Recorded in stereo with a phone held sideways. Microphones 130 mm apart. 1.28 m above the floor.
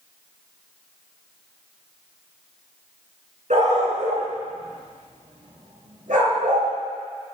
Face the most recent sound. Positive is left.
turn(degrees=-75)  # may be behind; listen again after turning